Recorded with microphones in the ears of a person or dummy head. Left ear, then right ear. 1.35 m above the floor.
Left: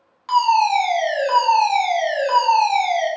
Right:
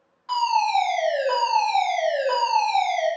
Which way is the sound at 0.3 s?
55° left (ahead or behind).